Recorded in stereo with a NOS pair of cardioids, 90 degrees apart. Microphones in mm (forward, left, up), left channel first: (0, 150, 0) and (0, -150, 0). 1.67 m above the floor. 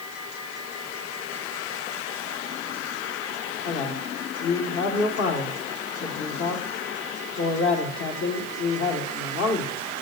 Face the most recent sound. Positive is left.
turn(degrees=45)